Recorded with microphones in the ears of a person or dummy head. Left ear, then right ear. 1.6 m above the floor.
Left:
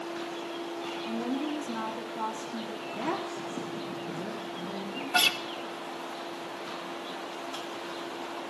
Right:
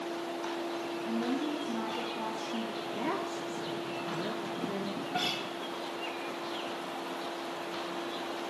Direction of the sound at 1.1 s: 15° left (ahead or behind).